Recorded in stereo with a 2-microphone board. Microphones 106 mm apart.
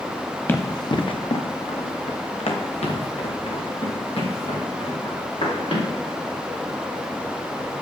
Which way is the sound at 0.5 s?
20° left (ahead or behind).